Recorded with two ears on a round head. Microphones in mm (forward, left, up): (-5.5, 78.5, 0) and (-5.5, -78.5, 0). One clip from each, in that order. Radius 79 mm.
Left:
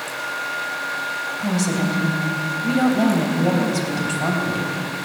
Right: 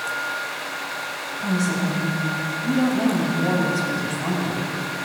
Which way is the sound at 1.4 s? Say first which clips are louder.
Left 1 dB; 70° left (ahead or behind).